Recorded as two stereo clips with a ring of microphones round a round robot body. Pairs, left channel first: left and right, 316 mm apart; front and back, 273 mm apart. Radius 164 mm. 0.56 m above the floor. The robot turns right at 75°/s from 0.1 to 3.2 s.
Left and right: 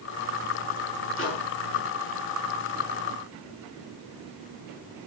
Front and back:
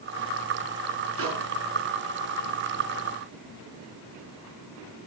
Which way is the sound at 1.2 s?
140° left.